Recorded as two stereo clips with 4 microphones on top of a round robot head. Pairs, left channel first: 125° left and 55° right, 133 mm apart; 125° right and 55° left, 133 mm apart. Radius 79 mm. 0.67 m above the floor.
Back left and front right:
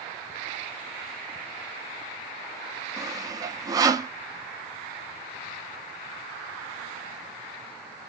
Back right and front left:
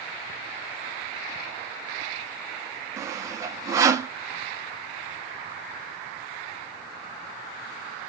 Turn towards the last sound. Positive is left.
turn(degrees=-5)